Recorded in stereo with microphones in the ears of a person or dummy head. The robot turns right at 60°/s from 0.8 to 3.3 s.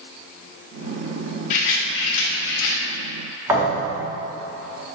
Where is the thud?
10° right (ahead or behind), 1.6 m.